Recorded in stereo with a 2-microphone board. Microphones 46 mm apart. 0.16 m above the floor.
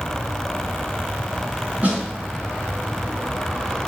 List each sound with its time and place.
1.8 s a snare drum: 35° right (ahead or behind), 2 m